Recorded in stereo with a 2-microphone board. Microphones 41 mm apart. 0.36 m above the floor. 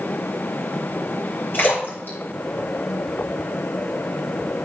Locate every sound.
1.5 s a splash: 55° left (ahead or behind), 6.5 m